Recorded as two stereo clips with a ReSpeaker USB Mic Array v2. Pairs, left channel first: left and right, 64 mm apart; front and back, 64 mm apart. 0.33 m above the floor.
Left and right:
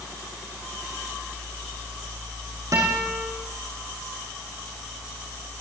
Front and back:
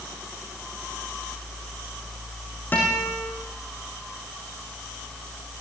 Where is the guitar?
60° right, 8 m.